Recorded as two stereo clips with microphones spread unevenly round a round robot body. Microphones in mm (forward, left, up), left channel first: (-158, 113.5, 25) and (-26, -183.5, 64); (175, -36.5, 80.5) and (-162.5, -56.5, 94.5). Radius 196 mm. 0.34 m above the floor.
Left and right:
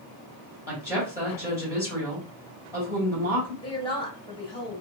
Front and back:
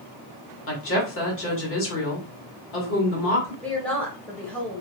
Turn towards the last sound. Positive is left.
turn(degrees=80)